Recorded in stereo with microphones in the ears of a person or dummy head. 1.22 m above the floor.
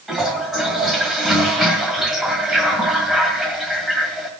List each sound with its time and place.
0.1 s a toilet flushing: centre (ahead or behind), 1.6 m